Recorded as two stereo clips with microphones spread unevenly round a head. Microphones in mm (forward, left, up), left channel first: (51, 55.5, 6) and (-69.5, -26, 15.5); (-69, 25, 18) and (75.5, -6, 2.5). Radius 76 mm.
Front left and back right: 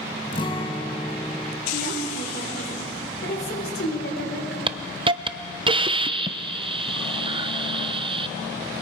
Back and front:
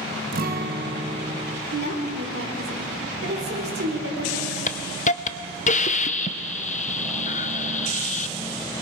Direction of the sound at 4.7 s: 170° left.